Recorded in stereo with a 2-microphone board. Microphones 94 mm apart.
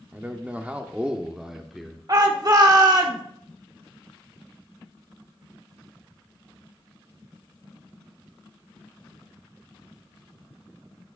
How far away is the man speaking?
About 0.8 m.